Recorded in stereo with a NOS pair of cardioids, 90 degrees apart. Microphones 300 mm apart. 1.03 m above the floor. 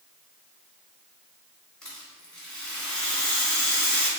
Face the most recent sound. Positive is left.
turn(degrees=5)